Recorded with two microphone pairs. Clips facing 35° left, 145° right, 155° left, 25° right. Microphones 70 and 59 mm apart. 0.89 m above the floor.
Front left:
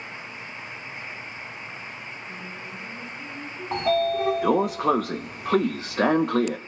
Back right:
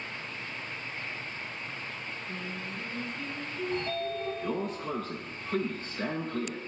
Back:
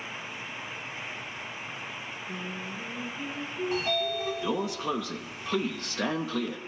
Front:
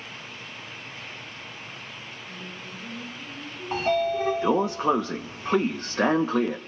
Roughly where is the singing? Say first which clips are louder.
Front left 1 dB, back 4 dB; behind left.